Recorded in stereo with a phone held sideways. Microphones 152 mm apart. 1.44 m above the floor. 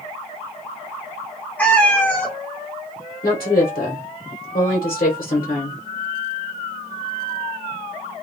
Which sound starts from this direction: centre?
A cat meowing, at 1.6 s.